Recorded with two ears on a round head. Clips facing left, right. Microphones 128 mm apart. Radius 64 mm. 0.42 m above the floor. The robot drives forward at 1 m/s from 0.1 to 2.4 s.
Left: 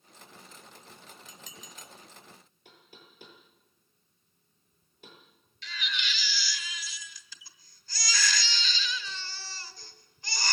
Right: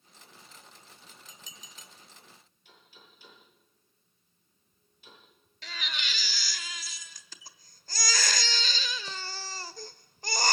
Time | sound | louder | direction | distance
1.3 | dishes clattering | left 4 dB | 50° left (ahead or behind) | 1.9 m
2.6 | knocking | left 3 dB | 45° left (ahead or behind) | 9.5 m
5.6 | a baby crying | left 2 dB | 40° right (ahead or behind) | 1.3 m